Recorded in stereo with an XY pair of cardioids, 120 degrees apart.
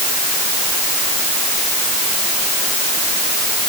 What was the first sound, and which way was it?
Only background noise.